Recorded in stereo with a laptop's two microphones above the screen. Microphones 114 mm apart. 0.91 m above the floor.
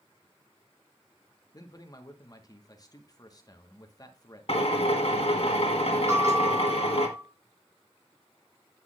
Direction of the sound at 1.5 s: 30° left (ahead or behind).